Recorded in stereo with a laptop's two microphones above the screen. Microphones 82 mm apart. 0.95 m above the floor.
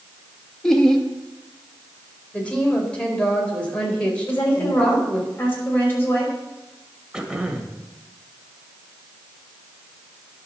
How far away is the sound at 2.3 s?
About 3.5 m.